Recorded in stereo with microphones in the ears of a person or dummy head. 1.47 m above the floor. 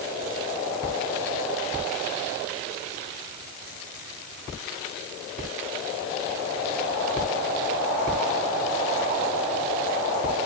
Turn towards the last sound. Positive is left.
No sound to turn to.